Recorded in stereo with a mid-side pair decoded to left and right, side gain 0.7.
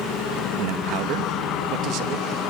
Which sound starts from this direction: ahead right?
A man speaking, at 0.6 s.